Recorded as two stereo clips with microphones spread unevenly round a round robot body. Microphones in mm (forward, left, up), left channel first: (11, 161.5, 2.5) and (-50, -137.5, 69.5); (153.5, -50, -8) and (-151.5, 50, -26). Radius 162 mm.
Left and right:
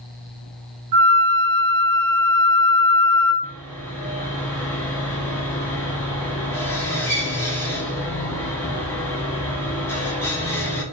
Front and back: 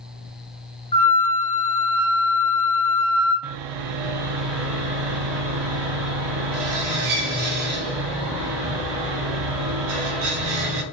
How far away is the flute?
About 0.9 m.